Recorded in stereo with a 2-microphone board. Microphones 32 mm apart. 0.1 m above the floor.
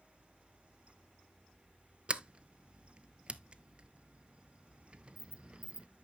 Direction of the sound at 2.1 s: 35° right (ahead or behind).